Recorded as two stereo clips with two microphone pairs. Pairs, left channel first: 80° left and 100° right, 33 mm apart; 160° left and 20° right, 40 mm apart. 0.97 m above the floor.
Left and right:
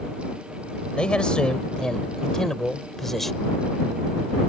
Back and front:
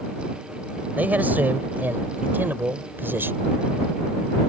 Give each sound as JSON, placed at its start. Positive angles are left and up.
{"t": 1.0, "sound": "a man speaking", "azimuth_deg": 25}